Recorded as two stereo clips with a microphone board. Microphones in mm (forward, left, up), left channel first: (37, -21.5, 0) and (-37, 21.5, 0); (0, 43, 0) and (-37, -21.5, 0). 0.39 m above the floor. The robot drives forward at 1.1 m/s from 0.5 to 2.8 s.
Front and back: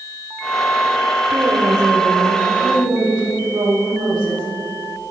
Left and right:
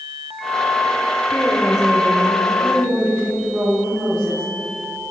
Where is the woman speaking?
120° left, 0.8 m; by 4.4 s 170° left, 2.0 m.